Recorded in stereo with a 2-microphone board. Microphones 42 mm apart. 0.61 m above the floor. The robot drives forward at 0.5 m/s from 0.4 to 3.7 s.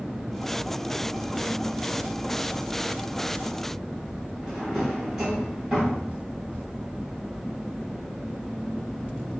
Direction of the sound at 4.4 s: 10° right (ahead or behind).